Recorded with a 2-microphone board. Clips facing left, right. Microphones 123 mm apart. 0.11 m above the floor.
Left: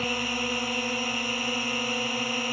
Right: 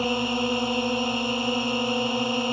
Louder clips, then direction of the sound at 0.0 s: Right 6 dB; 20° right (ahead or behind).